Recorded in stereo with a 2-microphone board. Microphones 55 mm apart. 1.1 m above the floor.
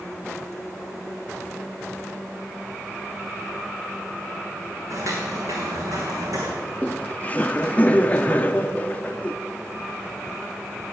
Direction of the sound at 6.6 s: 25° left (ahead or behind).